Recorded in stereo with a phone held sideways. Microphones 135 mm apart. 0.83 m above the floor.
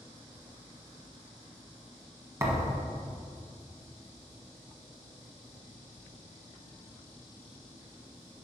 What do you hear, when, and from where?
2.4 s a thud: 20° right (ahead or behind), 1.4 m